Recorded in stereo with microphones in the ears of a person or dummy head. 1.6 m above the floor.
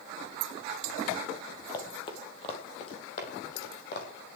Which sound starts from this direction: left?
Running footsteps, at 1.7 s.